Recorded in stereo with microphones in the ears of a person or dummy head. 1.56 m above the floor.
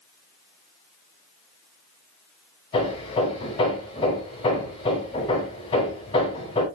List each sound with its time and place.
2.7 s hammering: 25° left (ahead or behind), 4.5 m